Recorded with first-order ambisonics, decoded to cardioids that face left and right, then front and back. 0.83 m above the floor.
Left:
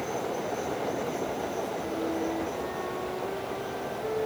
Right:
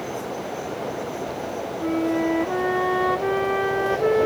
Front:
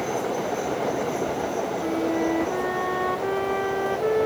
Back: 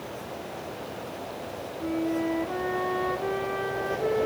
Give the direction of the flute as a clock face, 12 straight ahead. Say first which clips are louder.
Right 7 dB, front 1 dB; 3 o'clock.